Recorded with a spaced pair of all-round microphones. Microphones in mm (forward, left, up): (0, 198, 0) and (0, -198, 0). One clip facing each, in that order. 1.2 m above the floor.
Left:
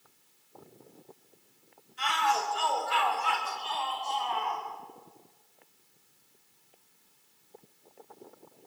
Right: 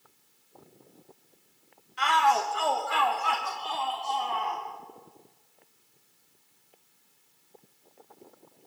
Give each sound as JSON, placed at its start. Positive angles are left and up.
{"t": 2.0, "sound": "a shout", "side_deg": -75, "distance_m": 1.3}